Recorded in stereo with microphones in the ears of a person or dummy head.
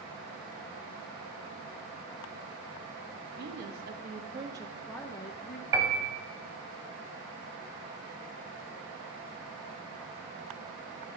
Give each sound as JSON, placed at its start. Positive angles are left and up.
{"t": 3.4, "sound": "a woman speaking", "side_deg": -50, "distance_m": 1.5}
{"t": 5.7, "sound": "a piano", "side_deg": -20, "distance_m": 1.3}